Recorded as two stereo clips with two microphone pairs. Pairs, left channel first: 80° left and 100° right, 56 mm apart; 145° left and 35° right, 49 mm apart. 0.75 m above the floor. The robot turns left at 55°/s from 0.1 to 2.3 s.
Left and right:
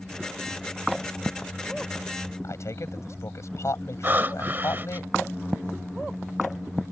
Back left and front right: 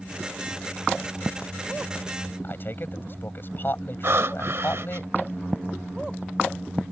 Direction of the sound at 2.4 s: 105° left.